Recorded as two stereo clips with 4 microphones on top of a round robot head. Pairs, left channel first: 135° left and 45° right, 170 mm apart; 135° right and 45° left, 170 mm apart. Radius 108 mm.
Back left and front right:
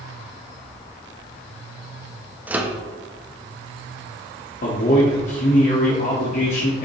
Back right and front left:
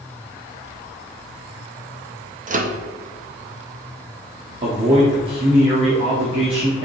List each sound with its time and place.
2.5 s a microwave: 35° left, 0.8 m
4.6 s a man speaking: 100° left, 1.4 m